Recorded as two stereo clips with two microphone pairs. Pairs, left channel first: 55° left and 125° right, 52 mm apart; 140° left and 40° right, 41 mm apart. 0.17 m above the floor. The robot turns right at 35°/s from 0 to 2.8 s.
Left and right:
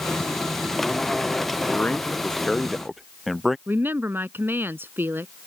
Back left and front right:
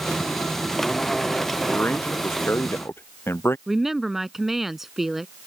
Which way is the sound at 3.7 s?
120° right.